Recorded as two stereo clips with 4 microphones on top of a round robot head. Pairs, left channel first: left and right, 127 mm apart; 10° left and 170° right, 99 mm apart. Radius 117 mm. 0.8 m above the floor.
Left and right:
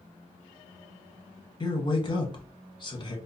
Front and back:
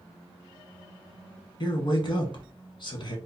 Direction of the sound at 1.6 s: 40° left.